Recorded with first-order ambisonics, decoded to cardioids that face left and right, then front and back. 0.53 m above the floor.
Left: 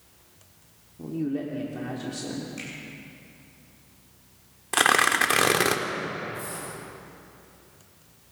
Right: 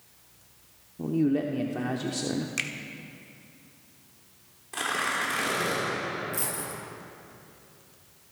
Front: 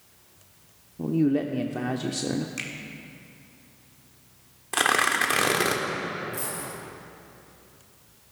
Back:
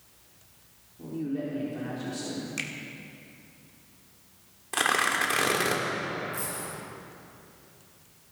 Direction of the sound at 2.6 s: 100° right.